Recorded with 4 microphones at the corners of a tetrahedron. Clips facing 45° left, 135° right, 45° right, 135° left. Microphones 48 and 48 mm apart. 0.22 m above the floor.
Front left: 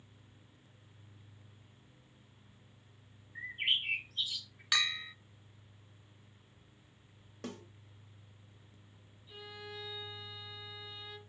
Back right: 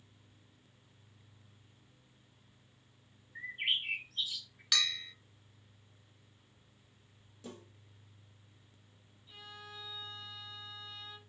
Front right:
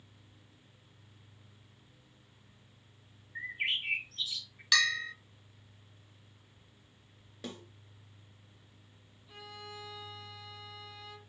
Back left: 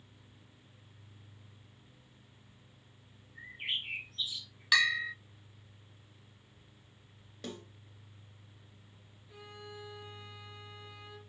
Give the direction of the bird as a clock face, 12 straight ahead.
2 o'clock.